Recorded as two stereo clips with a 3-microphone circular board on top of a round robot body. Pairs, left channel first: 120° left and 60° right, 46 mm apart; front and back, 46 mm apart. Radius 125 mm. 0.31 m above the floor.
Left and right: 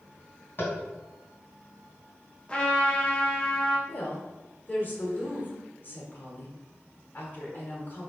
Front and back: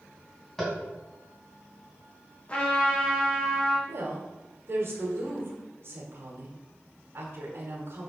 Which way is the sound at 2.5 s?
55° left.